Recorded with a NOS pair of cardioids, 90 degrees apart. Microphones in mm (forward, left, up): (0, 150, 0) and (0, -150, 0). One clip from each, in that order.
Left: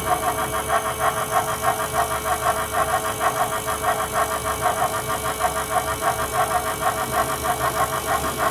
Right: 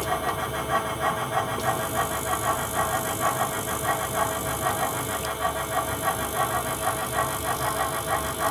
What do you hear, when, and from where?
0.0 s a fan: 35° left, 3.5 m